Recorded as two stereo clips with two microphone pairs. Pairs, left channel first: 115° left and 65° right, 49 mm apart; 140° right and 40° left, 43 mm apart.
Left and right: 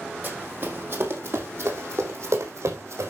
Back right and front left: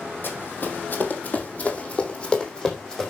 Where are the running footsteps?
110° right, 3 m; by 3.1 s 60° right, 4 m.